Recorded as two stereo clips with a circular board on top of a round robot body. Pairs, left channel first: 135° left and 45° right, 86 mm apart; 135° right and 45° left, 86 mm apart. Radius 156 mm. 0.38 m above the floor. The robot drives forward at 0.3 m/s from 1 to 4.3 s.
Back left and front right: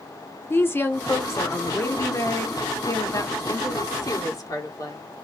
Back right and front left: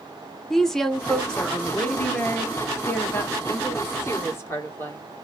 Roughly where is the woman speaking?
Behind left.